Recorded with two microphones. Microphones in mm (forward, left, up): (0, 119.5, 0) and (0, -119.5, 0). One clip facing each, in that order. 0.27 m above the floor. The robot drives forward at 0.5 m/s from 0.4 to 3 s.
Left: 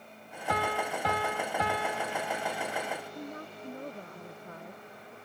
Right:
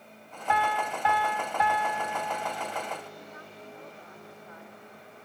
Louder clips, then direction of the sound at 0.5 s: Right 1 dB; 40° left (ahead or behind).